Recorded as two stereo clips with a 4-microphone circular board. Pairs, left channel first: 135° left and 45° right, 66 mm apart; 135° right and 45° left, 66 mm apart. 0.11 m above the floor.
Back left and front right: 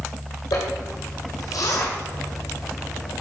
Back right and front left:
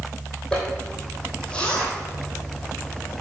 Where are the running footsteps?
I don't hear running footsteps.